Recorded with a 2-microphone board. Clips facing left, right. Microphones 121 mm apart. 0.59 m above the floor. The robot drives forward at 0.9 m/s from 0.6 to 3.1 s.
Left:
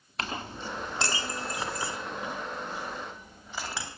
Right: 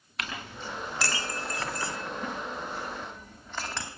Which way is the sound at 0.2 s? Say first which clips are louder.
Left 3 dB; 35° left (ahead or behind).